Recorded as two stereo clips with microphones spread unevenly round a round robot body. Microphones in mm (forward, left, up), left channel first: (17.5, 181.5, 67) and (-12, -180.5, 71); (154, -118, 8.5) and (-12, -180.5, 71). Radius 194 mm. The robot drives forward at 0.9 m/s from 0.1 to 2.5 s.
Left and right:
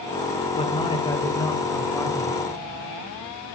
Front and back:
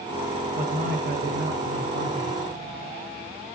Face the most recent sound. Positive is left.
turn(degrees=170)